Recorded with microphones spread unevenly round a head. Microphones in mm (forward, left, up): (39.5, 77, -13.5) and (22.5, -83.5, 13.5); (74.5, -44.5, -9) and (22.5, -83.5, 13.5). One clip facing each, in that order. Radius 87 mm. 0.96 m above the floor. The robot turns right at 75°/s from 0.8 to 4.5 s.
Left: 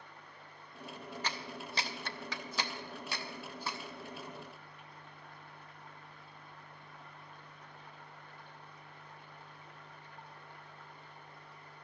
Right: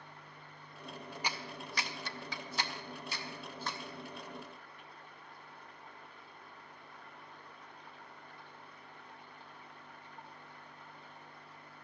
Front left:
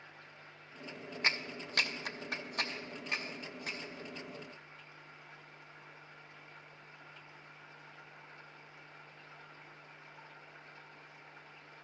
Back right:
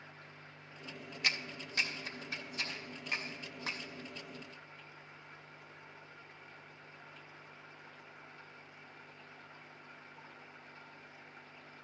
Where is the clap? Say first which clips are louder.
Right 1 dB, front left 2 dB; 15° right, 0.7 m; by 3.8 s 175° left, 0.7 m.